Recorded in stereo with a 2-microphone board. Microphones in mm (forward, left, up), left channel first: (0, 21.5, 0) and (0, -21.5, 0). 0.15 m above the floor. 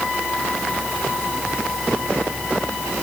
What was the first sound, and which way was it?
Only background noise.